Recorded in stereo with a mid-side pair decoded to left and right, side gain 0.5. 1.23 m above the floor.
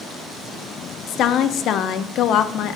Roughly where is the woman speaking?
Ahead left.